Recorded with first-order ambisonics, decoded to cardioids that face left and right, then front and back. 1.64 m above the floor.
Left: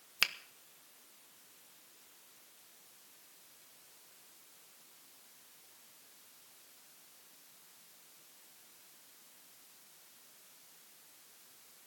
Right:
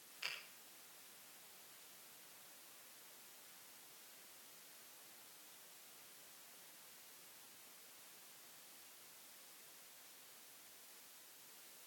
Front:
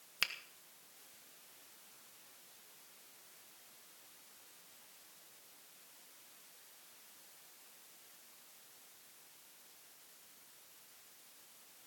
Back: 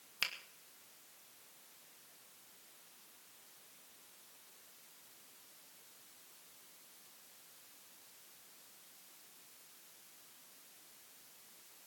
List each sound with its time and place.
0.2 s a finger snap: 85° left, 1.2 m